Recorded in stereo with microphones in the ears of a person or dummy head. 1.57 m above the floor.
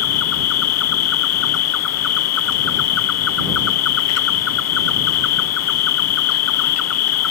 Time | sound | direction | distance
0.0 | an insect | 80° left | ?